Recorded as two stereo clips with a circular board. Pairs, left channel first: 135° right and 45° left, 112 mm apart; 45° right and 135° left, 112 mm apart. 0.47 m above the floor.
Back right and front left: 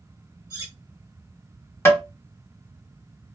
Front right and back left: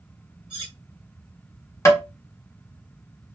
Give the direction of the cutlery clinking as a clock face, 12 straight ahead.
9 o'clock.